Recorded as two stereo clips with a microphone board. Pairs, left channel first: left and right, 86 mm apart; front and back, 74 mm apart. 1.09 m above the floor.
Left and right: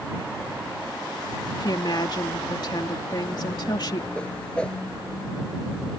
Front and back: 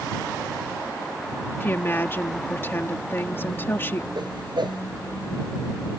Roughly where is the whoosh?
Behind.